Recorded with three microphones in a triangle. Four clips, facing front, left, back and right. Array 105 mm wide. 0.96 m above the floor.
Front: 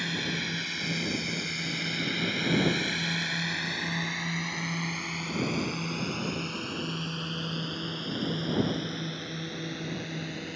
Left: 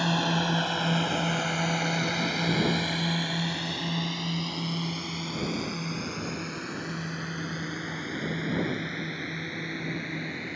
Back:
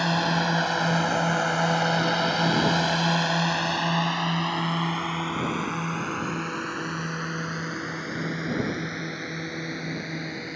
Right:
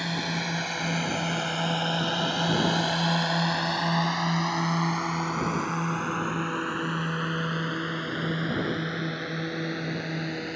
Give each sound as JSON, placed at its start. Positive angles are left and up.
{"t": 0.0, "sound": "a drone", "azimuth_deg": 160}